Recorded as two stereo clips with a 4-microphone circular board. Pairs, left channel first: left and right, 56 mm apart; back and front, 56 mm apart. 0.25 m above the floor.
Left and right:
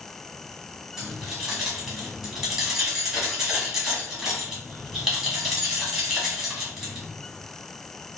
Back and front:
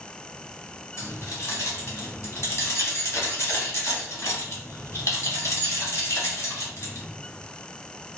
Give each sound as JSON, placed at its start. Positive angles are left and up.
{"t": 1.0, "sound": "keys jangling", "azimuth_deg": -170, "distance_m": 1.1}